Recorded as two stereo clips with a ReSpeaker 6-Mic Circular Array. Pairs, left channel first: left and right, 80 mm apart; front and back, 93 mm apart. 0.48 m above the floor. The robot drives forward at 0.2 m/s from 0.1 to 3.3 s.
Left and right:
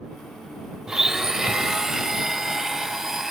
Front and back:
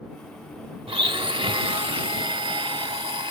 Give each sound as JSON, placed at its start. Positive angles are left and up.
{"t": 0.9, "sound": "a blender", "azimuth_deg": -170}